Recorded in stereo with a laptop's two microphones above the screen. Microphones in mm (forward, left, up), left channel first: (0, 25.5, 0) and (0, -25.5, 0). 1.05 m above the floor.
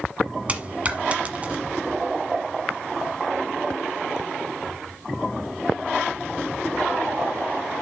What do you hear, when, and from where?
0.5 s a dropped coin: 25° right (ahead or behind), 1.3 m